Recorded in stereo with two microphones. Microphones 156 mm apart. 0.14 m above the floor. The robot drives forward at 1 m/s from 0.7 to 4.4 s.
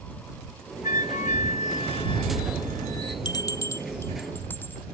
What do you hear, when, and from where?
0.8 s a flute: 60° left (ahead or behind); by 3.1 s 20° left (ahead or behind)
3.2 s a bell: 30° left (ahead or behind); by 4.8 s 10° left (ahead or behind)